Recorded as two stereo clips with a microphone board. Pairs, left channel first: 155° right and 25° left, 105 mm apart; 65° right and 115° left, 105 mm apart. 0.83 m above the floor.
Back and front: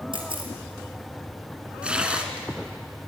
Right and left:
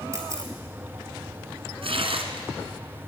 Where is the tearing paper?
100° left, 1.9 m.